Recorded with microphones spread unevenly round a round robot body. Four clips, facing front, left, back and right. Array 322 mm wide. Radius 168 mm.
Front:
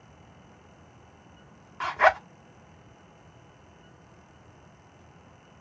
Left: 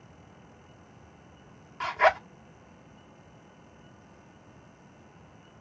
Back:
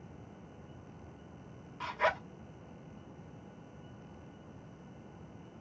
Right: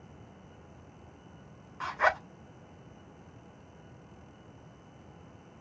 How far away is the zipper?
About 1.6 m.